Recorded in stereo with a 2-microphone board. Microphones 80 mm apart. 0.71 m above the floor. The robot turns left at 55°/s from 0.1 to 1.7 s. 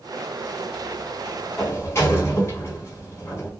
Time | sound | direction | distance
1.6 | a sliding door | 25° left (ahead or behind) | 0.9 m